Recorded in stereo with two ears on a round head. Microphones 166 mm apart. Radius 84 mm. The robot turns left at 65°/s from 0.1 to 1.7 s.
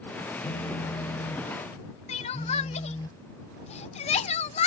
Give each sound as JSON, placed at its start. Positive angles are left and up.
{"t": 0.4, "sound": "a phone buzzing", "azimuth_deg": 100}
{"t": 2.1, "sound": "crying", "side_deg": 35}